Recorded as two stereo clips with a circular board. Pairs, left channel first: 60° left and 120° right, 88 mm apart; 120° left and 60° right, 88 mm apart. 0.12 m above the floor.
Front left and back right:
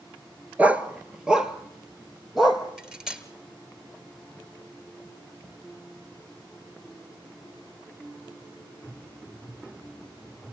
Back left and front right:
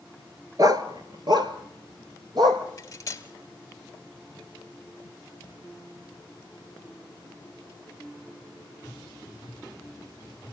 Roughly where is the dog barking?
Ahead right.